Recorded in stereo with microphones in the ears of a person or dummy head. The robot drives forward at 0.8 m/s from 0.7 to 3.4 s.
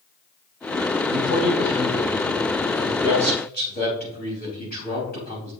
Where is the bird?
I don't hear a bird.